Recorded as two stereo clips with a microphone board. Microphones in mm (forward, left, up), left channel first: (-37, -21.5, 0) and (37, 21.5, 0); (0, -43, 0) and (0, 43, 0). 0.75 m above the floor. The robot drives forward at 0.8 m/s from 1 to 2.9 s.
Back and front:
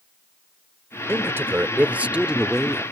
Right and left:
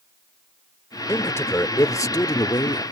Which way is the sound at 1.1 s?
30° right.